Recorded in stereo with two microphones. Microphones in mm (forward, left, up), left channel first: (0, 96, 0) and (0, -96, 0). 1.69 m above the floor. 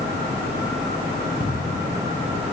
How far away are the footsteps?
About 2.5 m.